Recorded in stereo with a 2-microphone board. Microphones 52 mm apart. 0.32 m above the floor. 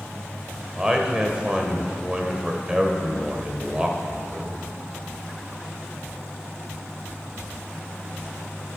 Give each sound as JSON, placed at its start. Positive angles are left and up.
{"t": 0.8, "sound": "a man speaking", "side_deg": -15, "distance_m": 1.1}